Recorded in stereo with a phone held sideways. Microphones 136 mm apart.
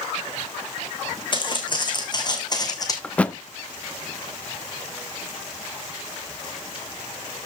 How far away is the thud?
About 0.5 m.